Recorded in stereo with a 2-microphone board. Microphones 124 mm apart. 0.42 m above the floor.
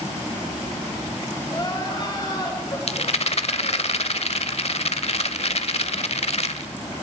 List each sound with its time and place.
1.5 s crying: 35° left (ahead or behind), 6.5 m
2.9 s a rattle: 55° left (ahead or behind), 1.0 m